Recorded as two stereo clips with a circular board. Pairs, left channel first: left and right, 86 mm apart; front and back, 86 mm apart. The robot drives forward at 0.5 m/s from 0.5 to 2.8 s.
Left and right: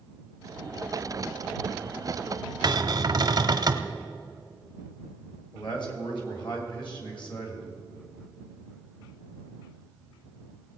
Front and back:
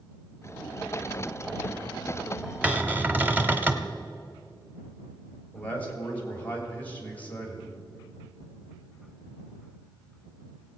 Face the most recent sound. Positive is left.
turn(degrees=70)